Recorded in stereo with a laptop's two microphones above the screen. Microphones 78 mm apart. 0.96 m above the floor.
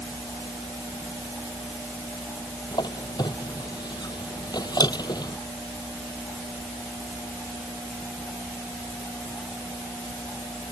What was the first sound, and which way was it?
A squeak, 60° left (ahead or behind).